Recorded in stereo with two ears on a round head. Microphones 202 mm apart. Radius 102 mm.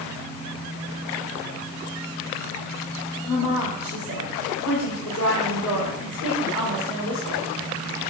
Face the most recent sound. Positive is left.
turn(degrees=80)